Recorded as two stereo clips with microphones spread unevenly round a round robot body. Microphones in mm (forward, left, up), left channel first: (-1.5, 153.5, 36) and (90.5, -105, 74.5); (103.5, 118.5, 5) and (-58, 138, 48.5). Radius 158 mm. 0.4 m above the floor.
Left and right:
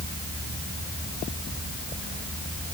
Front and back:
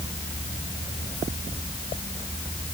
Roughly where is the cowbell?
No cowbell in this recording.